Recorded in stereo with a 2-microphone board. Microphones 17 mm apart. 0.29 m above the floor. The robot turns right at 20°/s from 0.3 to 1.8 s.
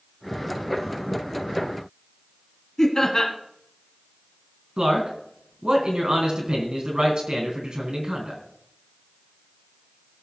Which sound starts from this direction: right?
A man speaking, at 4.8 s.